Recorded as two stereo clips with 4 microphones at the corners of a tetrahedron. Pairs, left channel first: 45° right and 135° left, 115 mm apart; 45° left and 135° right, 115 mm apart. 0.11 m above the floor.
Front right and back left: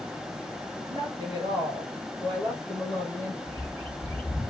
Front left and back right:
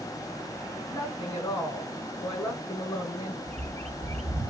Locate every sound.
0.9 s a woman speaking: 90° left, 1.4 m
3.5 s a bird: 120° right, 0.5 m